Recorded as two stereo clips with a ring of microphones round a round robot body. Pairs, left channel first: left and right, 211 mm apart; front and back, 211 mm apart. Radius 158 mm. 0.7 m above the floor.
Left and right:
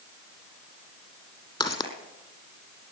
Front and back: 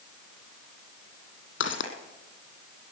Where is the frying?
I don't hear frying.